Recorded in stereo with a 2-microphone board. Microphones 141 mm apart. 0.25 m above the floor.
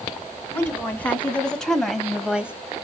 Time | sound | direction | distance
0.5 | a woman speaking | 15° left (ahead or behind) | 1.9 m